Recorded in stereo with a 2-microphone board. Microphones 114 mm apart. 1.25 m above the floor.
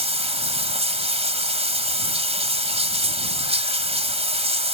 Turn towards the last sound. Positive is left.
turn(degrees=-65)  # may be behind; listen again after turning